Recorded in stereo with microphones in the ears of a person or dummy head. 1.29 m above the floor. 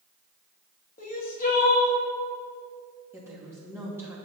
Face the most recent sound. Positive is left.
turn(degrees=-15)  # may be behind; listen again after turning